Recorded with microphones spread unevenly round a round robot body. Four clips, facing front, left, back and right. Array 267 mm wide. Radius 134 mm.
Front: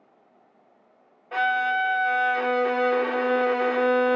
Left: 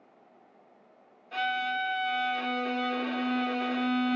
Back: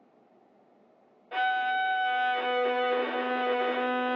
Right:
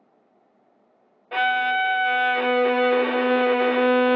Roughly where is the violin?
Ahead right.